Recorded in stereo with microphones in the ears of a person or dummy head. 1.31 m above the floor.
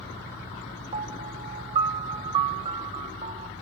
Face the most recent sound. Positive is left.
turn(degrees=-35)  # may be behind; listen again after turning